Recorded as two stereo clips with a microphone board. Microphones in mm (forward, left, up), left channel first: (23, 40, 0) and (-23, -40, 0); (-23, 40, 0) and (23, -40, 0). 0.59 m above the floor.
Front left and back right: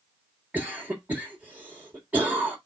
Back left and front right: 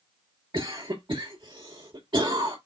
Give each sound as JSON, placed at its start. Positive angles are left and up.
{"t": 0.5, "sound": "a cough", "azimuth_deg": -50, "distance_m": 1.9}